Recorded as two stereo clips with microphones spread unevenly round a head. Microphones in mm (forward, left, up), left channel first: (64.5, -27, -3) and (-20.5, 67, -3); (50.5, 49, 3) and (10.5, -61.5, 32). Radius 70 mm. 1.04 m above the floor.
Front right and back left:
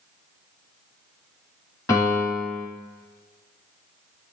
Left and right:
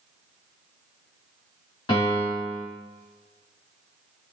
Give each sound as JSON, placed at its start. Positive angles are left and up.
{"t": 1.9, "sound": "a piano", "azimuth_deg": 15, "distance_m": 1.8}